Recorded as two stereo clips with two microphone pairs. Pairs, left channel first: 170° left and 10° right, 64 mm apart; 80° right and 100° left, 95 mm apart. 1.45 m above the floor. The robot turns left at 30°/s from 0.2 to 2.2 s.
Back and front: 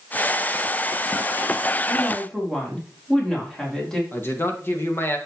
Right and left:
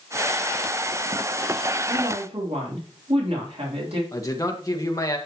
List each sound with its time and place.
1.9 s a woman speaking: 100° left, 3.5 m; by 4.0 s 90° left, 3.5 m
4.1 s a man speaking: 135° right, 1.8 m